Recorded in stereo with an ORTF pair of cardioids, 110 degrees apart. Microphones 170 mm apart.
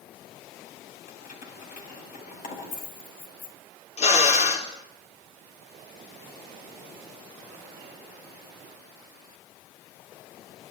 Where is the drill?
45° left, 4.5 m.